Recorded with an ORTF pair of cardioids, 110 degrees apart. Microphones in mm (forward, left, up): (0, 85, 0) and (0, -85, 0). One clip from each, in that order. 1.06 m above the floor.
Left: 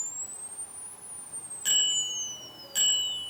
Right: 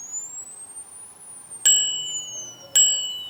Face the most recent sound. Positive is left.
turn(degrees=-70)